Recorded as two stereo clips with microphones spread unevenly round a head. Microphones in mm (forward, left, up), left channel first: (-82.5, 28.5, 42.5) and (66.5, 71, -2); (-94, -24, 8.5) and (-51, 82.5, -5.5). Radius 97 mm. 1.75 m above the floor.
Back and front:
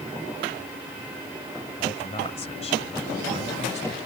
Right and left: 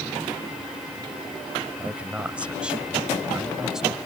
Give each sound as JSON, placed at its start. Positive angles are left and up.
{"t": 1.8, "sound": "a man speaking", "azimuth_deg": 145}